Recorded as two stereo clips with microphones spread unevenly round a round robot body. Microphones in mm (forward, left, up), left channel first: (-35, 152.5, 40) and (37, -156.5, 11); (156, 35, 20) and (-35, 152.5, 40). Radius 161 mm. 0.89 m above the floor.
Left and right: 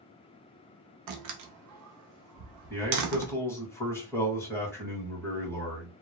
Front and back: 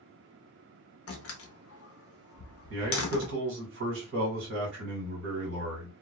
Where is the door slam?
50° right, 0.6 m.